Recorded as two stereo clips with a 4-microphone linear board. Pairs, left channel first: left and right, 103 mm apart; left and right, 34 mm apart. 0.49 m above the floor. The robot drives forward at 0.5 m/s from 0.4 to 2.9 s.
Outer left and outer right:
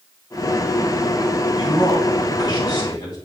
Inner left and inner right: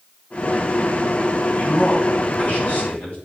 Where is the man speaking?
50° left (ahead or behind), 2.5 m; by 3.2 s 40° left (ahead or behind), 3 m.